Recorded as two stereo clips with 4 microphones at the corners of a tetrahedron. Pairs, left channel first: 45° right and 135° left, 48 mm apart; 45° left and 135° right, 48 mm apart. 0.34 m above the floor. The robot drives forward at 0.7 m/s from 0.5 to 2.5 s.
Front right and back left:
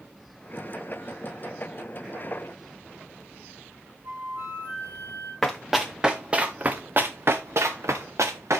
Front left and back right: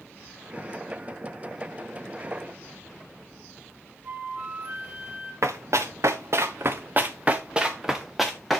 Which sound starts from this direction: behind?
A flute, at 4.0 s.